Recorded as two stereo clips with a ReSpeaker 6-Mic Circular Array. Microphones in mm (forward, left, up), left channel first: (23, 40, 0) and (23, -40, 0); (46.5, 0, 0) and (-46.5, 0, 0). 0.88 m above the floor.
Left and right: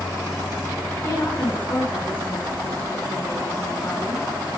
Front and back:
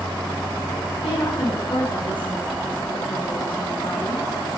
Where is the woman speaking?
25° left, 8.5 m.